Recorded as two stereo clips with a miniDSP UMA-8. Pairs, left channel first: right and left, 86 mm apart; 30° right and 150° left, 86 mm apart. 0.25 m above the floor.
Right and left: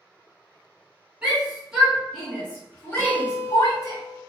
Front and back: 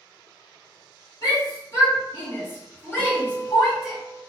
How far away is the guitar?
About 1.8 m.